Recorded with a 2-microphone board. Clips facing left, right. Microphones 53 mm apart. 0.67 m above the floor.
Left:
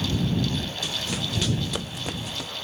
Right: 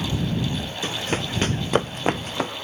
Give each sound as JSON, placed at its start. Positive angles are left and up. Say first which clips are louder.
{"t": 0.8, "sound": "running footsteps", "louder": "right 4 dB", "side_deg": -40}